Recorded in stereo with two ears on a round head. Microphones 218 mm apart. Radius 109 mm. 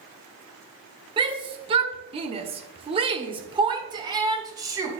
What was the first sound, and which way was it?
A shout, 20° right (ahead or behind).